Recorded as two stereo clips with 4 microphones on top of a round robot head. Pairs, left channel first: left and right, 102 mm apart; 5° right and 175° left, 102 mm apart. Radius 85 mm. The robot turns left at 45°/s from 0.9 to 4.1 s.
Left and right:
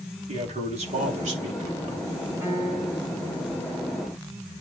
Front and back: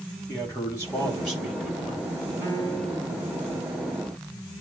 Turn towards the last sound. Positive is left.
turn(degrees=130)